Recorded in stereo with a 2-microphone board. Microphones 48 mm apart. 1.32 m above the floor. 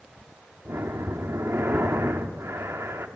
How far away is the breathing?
About 1.8 m.